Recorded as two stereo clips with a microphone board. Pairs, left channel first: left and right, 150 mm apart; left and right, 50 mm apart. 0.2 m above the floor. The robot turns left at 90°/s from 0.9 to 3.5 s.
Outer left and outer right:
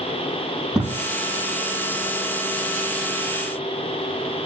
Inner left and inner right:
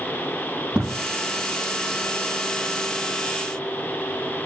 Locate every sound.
0.7 s a thud: 5° right (ahead or behind), 3 m; by 1.0 s 15° right (ahead or behind), 3 m